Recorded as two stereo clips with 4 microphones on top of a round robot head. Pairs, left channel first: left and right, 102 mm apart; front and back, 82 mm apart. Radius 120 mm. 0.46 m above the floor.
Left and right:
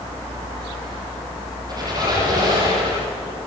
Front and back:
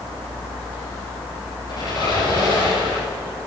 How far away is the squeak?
About 8.5 m.